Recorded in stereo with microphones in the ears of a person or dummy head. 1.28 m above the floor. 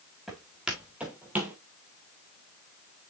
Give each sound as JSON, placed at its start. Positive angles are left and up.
{"t": 0.3, "sound": "footsteps", "side_deg": 5, "distance_m": 3.0}